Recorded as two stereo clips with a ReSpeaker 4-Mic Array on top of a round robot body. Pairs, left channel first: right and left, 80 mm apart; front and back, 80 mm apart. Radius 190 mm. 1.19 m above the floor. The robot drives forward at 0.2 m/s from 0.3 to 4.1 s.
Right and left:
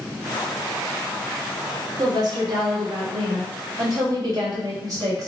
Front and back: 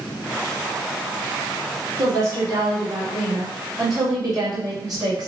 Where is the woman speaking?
125° left, 1.9 m; by 5.3 s 135° left, 2 m.